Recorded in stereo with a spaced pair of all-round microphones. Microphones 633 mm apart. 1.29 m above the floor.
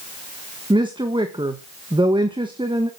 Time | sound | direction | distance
0.7 | a woman speaking | 5° right (ahead or behind) | 1.2 m